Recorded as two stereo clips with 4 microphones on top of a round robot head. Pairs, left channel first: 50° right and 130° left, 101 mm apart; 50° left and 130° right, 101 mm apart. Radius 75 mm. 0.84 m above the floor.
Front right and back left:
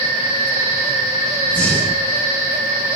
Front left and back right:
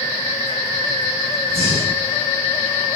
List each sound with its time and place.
1.5 s breathing: 30° left, 9 m